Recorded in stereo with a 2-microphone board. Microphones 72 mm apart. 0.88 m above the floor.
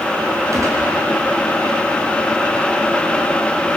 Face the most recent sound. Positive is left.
turn(degrees=-45)  # may be behind; listen again after turning